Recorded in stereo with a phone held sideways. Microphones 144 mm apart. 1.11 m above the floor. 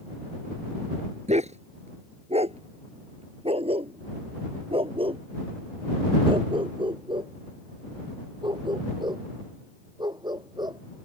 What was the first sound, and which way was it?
A dog barking, 55° right (ahead or behind).